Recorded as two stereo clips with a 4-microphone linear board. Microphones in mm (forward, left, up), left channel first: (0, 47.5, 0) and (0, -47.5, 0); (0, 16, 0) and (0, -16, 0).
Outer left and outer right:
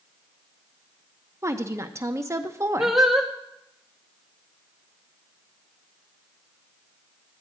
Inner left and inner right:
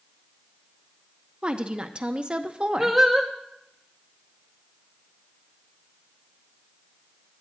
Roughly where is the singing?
Centre.